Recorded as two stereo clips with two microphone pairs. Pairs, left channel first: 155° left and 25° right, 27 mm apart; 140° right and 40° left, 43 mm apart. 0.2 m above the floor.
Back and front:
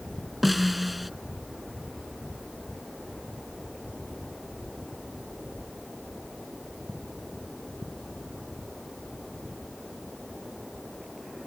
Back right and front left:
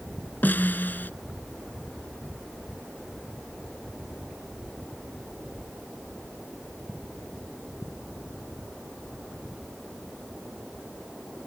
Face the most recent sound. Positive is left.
turn(degrees=-110)